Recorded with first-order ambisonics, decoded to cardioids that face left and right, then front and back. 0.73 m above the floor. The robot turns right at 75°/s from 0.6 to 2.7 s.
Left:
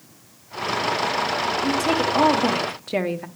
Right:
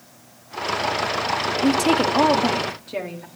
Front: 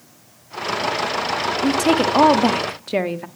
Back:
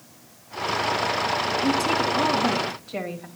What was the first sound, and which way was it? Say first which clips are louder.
A woman speaking: right 5 dB, front 7 dB; 55° right.